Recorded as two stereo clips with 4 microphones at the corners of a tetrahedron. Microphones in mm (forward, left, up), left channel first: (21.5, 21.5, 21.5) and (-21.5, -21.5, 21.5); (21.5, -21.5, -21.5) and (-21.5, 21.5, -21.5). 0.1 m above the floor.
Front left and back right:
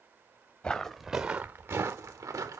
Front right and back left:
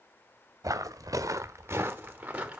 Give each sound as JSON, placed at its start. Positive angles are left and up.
{"t": 0.6, "sound": "footsteps", "azimuth_deg": 115, "distance_m": 0.9}